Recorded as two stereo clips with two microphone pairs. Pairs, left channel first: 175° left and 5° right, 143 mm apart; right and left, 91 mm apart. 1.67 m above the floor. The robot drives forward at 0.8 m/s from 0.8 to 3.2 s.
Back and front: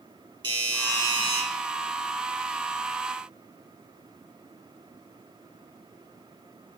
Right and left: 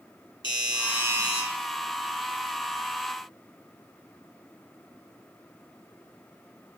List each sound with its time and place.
0.4 s a doorbell: 60° right, 3 m; by 1.4 s 70° right, 3 m